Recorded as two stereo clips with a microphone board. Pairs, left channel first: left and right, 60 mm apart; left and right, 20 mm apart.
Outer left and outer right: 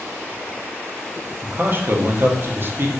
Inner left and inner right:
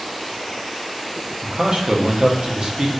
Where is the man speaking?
40° right (ahead or behind), 0.5 m.